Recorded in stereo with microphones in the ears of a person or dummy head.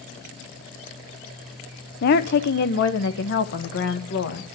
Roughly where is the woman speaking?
Left.